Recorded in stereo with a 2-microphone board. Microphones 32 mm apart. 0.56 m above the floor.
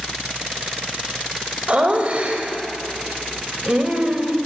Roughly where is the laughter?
Right.